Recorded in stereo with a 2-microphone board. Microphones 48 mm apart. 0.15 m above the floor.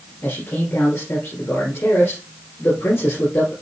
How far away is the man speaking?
About 3 m.